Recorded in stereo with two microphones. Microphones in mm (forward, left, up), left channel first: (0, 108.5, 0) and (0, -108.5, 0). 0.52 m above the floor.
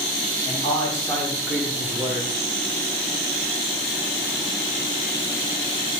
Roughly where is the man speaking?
Left.